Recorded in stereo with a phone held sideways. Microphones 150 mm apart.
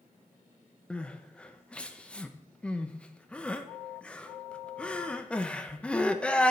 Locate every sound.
0.9 s crying: 5° left (ahead or behind), 0.7 m